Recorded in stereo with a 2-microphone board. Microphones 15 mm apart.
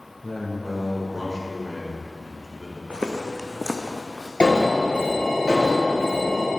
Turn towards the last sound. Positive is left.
turn(degrees=65)  # may be behind; listen again after turning